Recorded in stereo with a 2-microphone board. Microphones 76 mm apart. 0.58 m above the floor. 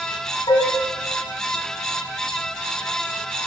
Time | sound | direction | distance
0.5 | dishes clattering | 60° left (ahead or behind) | 3.5 m